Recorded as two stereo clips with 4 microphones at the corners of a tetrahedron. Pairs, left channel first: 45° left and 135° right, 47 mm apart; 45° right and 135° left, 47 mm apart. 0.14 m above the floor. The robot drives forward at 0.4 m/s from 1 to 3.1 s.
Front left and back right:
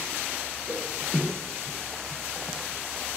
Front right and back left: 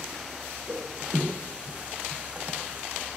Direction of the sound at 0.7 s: Straight behind.